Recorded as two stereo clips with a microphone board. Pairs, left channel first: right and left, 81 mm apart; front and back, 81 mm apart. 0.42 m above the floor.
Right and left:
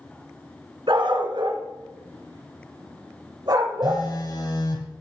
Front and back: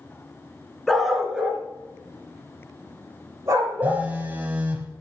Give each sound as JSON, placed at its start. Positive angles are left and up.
{"t": 0.9, "sound": "a dog barking", "azimuth_deg": 90, "distance_m": 1.9}
{"t": 3.8, "sound": "a phone buzzing", "azimuth_deg": -115, "distance_m": 2.0}